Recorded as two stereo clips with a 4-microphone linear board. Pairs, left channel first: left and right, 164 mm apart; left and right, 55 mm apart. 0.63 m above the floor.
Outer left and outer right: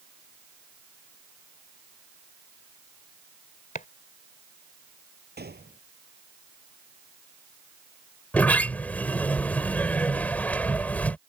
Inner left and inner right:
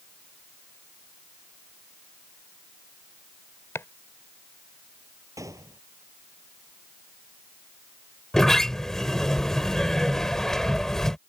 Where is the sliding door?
10° left (ahead or behind).